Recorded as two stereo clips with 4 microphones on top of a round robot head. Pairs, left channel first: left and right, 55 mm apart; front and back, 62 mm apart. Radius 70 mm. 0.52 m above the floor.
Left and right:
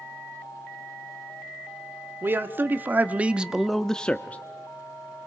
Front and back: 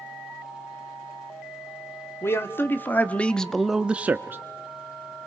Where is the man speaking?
45° right, 1.5 m; by 4.4 s 140° left, 1.0 m.